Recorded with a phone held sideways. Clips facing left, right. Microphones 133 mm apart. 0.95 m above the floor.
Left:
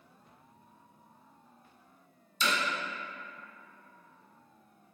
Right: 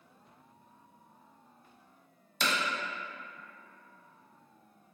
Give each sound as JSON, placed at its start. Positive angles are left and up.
{"t": 2.4, "sound": "hammering", "side_deg": -75, "distance_m": 0.8}